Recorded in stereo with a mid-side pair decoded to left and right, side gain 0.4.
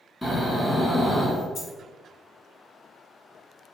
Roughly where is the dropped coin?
Ahead left.